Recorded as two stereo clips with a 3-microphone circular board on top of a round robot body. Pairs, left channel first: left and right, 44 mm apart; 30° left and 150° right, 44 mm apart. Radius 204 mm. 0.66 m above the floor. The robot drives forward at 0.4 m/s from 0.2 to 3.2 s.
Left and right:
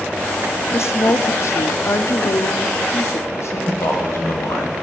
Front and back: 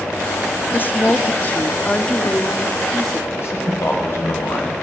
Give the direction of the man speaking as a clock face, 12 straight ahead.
10 o'clock.